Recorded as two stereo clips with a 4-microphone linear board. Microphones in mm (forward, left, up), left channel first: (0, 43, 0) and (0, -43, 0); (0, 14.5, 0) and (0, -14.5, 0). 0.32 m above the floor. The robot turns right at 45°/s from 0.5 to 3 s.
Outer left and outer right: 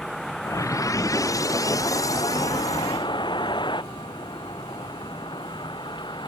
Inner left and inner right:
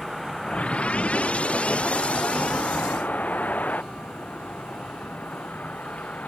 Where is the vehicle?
5° left (ahead or behind); by 6.3 s 60° left (ahead or behind).